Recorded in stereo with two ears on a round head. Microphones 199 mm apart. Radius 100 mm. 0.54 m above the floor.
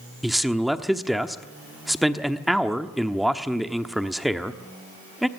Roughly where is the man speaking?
Centre.